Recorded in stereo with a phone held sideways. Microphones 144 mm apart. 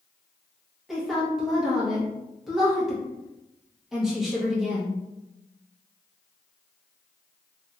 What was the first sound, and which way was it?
A woman speaking, centre (ahead or behind).